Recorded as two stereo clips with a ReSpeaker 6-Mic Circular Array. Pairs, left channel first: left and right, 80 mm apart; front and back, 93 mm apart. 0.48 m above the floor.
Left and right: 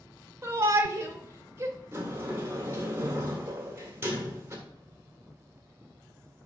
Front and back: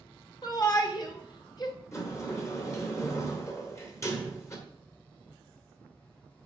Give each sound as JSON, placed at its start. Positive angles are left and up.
{"t": 0.4, "sound": "a shout", "azimuth_deg": -40, "distance_m": 1.5}
{"t": 1.9, "sound": "a sliding door", "azimuth_deg": -45, "distance_m": 1.6}